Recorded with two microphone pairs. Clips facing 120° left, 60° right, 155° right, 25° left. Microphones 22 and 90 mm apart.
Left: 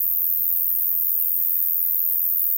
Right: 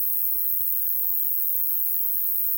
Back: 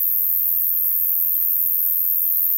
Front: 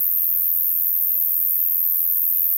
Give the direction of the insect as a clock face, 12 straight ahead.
5 o'clock.